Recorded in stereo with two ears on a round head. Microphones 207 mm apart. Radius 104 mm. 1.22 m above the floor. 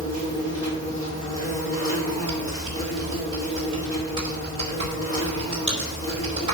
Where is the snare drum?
I don't hear a snare drum.